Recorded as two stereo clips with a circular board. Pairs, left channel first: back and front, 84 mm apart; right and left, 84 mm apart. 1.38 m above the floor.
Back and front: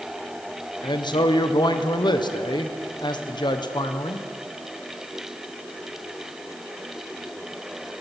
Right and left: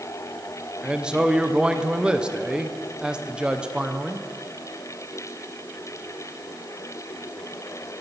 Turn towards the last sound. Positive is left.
turn(degrees=165)